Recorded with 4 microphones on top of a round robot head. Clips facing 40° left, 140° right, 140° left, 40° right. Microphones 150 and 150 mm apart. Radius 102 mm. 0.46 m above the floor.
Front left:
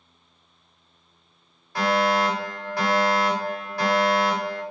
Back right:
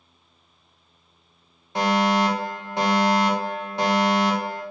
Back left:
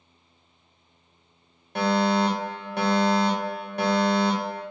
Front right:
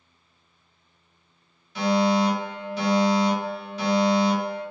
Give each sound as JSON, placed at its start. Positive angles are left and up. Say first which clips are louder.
{"t": 1.8, "sound": "a fire alarm", "louder": "back right 1 dB, front right 1 dB", "azimuth_deg": 155, "distance_m": 3.5}